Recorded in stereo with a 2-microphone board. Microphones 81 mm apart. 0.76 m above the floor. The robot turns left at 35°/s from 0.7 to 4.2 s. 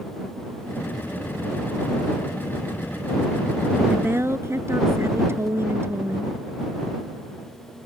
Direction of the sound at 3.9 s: 25° right (ahead or behind).